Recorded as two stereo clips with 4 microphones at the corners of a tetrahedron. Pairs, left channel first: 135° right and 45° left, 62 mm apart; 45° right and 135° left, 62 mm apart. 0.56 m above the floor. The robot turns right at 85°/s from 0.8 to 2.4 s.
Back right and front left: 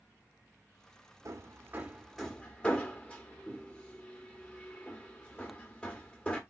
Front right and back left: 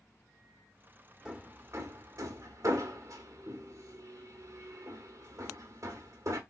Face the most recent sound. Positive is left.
turn(degrees=155)